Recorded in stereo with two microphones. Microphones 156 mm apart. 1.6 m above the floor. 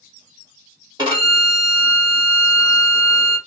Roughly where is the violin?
Right.